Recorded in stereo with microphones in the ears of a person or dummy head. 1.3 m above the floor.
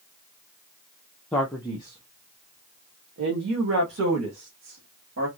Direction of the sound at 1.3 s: 5° left (ahead or behind).